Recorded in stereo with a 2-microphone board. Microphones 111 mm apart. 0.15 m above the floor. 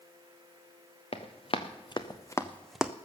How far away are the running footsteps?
About 1.4 m.